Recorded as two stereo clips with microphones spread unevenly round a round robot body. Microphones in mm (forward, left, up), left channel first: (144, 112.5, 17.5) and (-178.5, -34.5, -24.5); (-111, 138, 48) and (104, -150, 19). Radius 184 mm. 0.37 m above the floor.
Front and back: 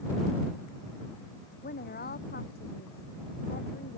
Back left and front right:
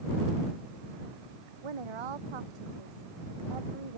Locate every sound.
1.6 s a woman speaking: 45° right; by 4.0 s 40° right